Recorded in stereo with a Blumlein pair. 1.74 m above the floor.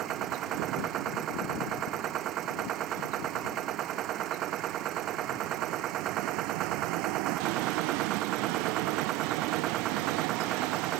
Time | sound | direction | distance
0.0 | a machine running | 30° right | ?